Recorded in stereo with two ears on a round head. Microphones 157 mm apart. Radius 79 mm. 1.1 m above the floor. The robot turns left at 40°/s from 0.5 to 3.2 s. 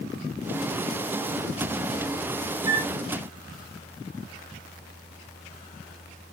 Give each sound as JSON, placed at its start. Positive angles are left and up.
{"t": 2.7, "sound": "a flute", "side_deg": -20, "distance_m": 0.6}